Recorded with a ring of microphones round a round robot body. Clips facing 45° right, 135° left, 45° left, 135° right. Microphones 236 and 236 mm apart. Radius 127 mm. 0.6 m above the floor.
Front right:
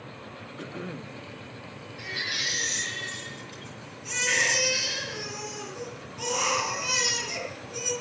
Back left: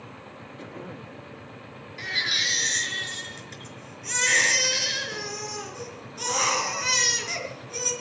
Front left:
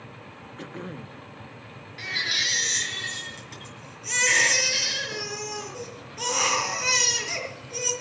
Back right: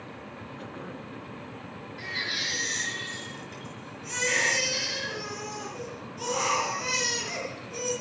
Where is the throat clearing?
15° left, 0.9 m.